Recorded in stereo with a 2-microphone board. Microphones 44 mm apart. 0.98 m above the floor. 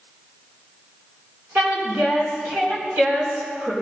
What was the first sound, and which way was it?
A woman speaking, 50° right (ahead or behind).